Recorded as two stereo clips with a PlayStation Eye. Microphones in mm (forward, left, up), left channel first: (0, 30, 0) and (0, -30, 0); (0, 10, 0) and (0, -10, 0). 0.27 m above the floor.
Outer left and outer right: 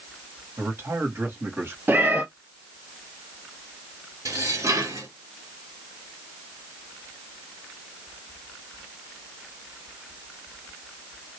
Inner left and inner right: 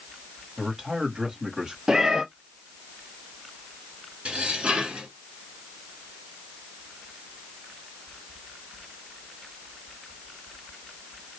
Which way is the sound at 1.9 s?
35° right (ahead or behind).